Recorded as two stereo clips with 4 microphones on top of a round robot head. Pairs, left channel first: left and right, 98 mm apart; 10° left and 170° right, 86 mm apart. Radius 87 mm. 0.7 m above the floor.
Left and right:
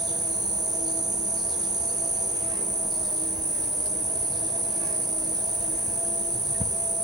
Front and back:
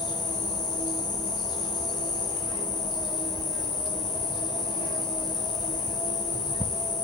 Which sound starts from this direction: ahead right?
An insect, at 0.0 s.